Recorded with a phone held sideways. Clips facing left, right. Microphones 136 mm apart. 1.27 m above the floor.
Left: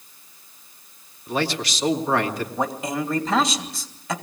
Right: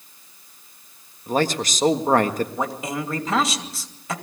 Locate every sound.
1.3 s a man speaking: 45° right (ahead or behind), 1.6 m
2.6 s a man speaking: centre (ahead or behind), 2.5 m